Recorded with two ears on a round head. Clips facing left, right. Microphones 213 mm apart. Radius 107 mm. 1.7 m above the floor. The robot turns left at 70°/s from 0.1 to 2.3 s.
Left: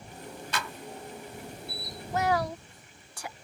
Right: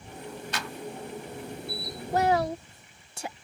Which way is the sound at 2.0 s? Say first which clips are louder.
Right 3 dB; 45° right (ahead or behind).